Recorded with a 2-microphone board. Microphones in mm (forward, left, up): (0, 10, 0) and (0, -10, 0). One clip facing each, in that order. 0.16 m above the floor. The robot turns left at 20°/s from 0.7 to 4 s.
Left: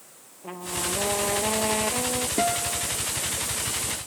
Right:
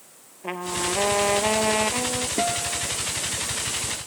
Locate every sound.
0.4 s a trumpet: 125° right; by 2.3 s 155° right
2.4 s a guitar: 20° left (ahead or behind); by 2.9 s 10° left (ahead or behind)